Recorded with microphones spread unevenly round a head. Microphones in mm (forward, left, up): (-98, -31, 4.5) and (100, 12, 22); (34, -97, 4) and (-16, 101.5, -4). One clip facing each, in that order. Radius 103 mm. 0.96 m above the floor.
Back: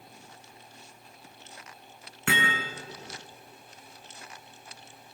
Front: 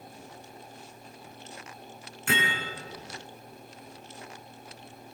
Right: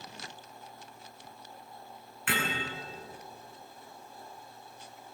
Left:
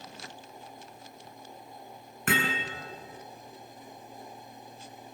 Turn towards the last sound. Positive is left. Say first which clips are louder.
# back 1 dB, left 4 dB
turn(degrees=155)